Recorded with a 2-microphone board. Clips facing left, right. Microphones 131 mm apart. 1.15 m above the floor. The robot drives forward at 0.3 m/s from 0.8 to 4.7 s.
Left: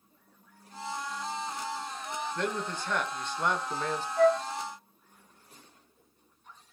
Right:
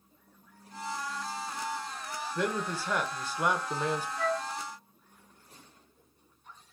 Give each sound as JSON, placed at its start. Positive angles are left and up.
{"t": 2.4, "sound": "a man speaking", "side_deg": -5, "distance_m": 1.0}
{"t": 4.2, "sound": "a flute", "side_deg": 50, "distance_m": 0.5}